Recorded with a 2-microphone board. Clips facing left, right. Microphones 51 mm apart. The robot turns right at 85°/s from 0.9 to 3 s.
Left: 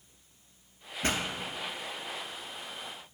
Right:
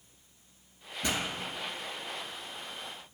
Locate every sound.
1.0 s a pop: 45° left (ahead or behind), 0.5 m; by 1.2 s 40° left (ahead or behind), 0.5 m